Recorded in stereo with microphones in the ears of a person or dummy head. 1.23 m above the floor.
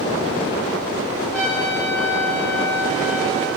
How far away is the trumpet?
About 8.5 m.